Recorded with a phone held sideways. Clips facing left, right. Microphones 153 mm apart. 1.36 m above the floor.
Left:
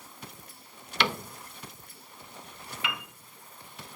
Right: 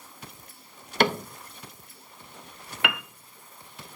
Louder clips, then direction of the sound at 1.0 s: Right 7 dB; 50° right (ahead or behind).